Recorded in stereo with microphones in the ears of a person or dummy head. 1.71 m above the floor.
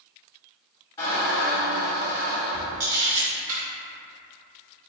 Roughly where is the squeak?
Left.